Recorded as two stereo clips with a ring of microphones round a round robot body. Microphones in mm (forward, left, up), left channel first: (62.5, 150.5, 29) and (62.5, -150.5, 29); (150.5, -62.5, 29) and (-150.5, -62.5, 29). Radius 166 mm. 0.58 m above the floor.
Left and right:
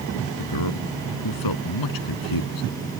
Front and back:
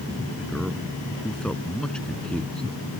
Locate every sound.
0.4 s a man speaking: 85° left